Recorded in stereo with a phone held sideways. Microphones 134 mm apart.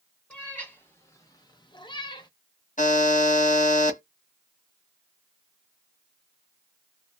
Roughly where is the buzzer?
Left.